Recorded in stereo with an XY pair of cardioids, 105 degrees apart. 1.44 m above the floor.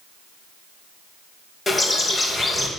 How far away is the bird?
About 2 m.